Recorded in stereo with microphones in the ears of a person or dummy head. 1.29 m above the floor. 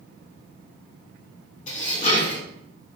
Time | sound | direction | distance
1.7 | dishes clattering | 45° left (ahead or behind) | 1.2 m